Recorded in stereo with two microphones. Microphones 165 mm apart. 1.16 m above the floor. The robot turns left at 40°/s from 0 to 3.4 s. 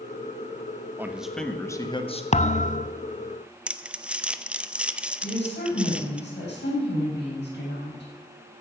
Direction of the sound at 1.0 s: 165° right.